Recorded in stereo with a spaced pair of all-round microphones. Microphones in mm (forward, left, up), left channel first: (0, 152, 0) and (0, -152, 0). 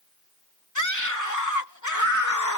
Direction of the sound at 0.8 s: 75° left (ahead or behind).